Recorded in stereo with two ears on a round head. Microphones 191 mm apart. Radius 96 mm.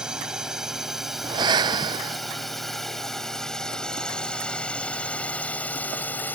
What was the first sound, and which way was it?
A drone, 5° right (ahead or behind).